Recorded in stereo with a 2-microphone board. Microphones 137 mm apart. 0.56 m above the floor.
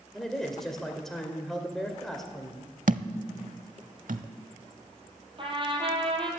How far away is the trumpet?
About 2.5 m.